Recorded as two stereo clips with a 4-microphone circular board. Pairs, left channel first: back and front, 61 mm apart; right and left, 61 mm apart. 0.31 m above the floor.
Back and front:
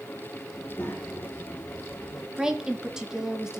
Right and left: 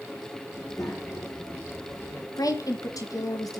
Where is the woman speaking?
80° right, 3.5 m.